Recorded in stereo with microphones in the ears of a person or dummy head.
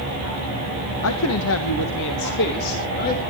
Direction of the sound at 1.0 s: 85° left.